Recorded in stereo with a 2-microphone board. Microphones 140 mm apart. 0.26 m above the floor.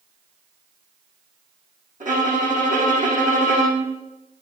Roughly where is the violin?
Right.